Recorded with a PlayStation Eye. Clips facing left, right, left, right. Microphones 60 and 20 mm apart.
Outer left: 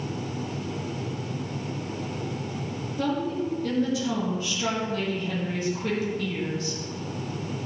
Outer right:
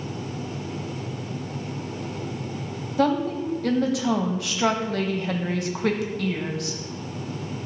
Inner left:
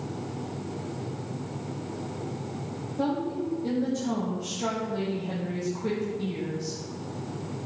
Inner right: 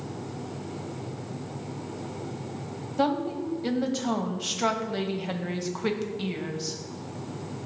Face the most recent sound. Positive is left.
turn(degrees=-75)  # may be behind; listen again after turning